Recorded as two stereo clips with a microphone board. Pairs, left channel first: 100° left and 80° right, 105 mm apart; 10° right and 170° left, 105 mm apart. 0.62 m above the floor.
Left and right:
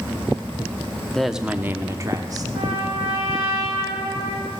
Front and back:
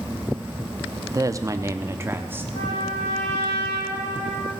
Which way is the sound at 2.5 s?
20° right.